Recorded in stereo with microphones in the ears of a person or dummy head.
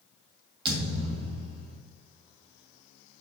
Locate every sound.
0.7 s a thud: 30° right (ahead or behind), 2.5 m